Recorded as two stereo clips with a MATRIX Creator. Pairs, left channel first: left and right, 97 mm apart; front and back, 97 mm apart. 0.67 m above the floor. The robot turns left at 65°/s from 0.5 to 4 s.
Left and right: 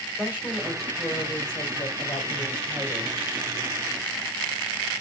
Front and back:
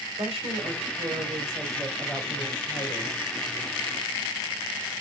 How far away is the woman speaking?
About 2.5 m.